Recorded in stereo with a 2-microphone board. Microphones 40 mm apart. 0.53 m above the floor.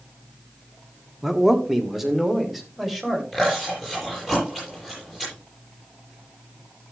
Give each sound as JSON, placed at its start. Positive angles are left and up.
{"t": 1.2, "sound": "a man speaking", "side_deg": -10, "distance_m": 1.1}
{"t": 3.3, "sound": "chewing", "side_deg": -10, "distance_m": 8.0}